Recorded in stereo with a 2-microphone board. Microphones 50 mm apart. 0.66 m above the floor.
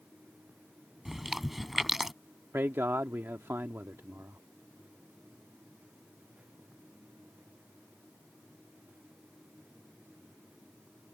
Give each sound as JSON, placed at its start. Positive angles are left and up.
{"t": 1.1, "sound": "chewing", "side_deg": -5}
{"t": 2.5, "sound": "a man speaking", "side_deg": -55}